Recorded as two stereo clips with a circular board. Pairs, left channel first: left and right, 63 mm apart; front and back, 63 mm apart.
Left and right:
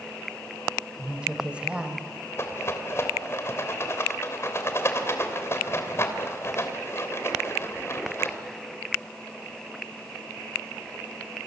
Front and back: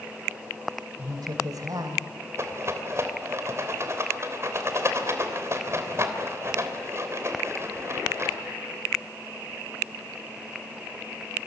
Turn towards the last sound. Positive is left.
turn(degrees=140)